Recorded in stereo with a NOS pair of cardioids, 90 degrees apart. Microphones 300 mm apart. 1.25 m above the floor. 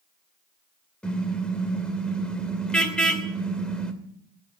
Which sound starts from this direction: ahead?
A car horn, at 1.0 s.